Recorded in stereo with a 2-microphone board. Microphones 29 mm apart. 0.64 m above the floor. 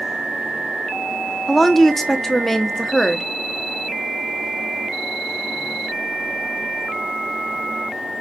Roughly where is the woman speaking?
Centre.